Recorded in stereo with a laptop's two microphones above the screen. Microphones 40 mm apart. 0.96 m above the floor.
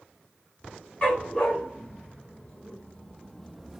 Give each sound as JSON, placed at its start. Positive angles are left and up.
{"t": 1.0, "sound": "a dog barking", "side_deg": 35, "distance_m": 2.5}